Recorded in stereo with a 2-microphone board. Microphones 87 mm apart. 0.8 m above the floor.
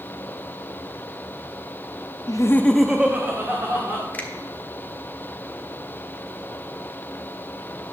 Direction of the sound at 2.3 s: 50° left (ahead or behind).